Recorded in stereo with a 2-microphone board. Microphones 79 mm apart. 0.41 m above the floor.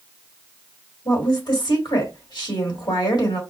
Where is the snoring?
I don't hear snoring.